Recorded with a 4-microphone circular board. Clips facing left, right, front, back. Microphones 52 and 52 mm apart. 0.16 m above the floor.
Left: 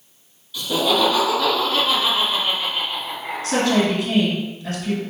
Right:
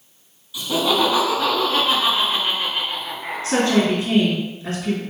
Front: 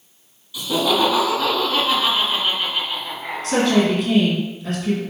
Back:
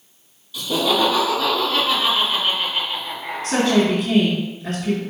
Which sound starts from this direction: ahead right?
Laughter, at 0.5 s.